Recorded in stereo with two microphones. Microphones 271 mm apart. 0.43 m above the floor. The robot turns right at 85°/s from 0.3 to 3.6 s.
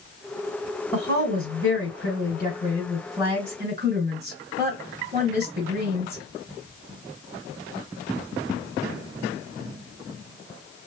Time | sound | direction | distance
0.9 | a woman speaking | 10° left | 1.5 m